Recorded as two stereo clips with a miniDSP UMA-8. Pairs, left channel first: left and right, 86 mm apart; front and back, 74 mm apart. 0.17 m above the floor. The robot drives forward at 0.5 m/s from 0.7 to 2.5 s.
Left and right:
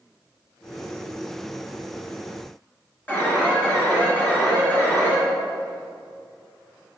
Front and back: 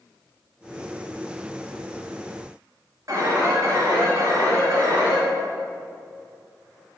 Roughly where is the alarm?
Behind left.